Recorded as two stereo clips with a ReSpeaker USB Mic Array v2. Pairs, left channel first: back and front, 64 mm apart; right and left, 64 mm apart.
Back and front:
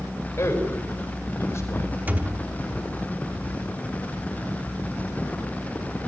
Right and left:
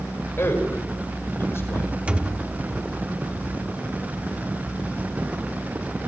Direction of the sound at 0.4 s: 135° right.